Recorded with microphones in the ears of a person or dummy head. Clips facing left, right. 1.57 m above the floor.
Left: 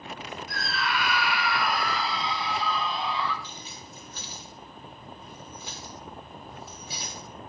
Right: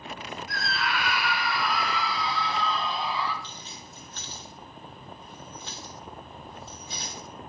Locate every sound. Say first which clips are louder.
0.5 s a scream: even; 85° left, 2 m; by 3.3 s 5° right (ahead or behind), 2.5 m
3.4 s keys jangling: left 1 dB; 10° left (ahead or behind), 2.5 m